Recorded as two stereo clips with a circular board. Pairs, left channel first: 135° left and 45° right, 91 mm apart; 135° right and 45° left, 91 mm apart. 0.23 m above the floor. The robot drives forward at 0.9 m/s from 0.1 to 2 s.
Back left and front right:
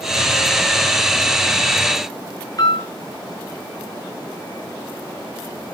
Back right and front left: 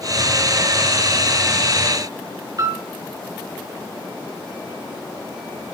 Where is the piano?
90° left, 4 m.